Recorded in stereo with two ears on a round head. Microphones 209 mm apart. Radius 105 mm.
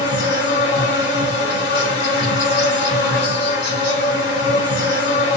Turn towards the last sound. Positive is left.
turn(degrees=50)  # may be behind; listen again after turning